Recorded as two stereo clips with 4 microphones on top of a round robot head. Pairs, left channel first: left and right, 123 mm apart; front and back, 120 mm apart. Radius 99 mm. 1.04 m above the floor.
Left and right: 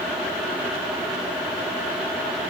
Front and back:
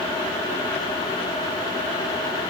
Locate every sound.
Only background noise.